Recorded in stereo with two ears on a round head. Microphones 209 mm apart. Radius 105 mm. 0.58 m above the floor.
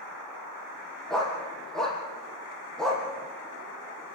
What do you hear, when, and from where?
1.1 s a dog barking: centre (ahead or behind), 4.5 m